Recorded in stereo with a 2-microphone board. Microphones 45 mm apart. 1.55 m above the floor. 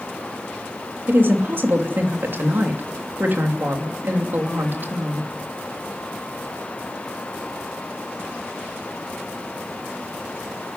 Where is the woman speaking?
50° right (ahead or behind), 2.5 m.